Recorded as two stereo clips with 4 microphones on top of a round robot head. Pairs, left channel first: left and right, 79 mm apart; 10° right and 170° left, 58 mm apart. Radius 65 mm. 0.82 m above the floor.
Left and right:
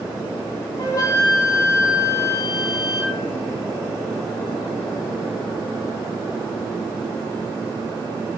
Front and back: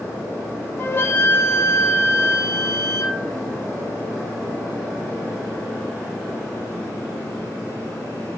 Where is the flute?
40° left, 1.3 m.